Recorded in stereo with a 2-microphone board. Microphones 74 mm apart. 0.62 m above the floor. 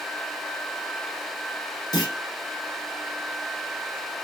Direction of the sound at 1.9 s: 65° left (ahead or behind).